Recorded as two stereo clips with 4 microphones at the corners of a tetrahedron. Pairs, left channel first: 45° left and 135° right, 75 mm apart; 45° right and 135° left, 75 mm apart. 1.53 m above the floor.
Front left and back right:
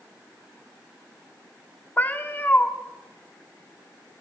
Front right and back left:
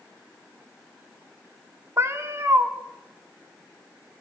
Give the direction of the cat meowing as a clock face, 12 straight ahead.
9 o'clock.